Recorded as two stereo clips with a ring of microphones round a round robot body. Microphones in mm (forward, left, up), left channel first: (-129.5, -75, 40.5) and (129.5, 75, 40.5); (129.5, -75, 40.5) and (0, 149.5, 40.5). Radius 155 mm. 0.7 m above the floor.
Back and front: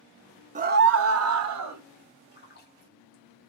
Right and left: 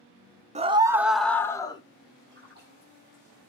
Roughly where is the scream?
Left.